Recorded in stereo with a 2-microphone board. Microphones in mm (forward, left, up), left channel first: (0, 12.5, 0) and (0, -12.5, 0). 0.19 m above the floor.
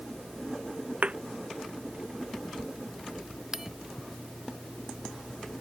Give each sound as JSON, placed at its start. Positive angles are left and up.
{"t": 1.0, "sound": "a thud", "side_deg": -55}
{"t": 3.5, "sound": "a bell", "side_deg": -15}